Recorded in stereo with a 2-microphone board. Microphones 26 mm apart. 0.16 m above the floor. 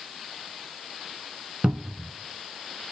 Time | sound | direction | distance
1.6 | a cupboard door | 35° right (ahead or behind) | 0.5 m